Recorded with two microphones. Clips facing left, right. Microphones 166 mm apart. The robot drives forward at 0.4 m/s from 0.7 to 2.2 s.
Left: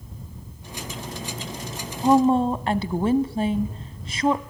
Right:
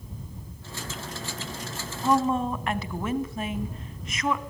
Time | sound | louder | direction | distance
2.0 | a woman speaking | left 6 dB | 30° left (ahead or behind) | 1.1 m